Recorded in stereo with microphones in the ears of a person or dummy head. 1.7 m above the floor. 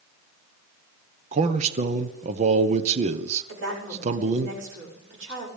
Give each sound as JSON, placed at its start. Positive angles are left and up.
{"t": 1.3, "sound": "a man speaking", "side_deg": -35, "distance_m": 0.9}
{"t": 3.5, "sound": "a woman speaking", "side_deg": -75, "distance_m": 6.5}